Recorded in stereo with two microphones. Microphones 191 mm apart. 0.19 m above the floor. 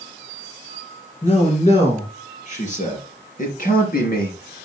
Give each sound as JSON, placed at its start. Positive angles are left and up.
{"t": 1.2, "sound": "a man speaking", "side_deg": 30, "distance_m": 4.0}